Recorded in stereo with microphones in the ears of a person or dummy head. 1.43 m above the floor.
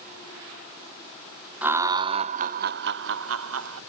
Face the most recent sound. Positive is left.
turn(degrees=-85)